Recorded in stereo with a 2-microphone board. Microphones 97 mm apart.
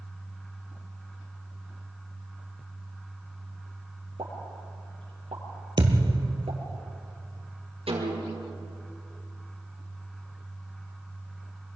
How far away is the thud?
About 2.5 m.